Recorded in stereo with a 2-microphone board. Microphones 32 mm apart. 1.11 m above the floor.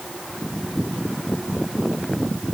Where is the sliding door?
No sliding door in this recording.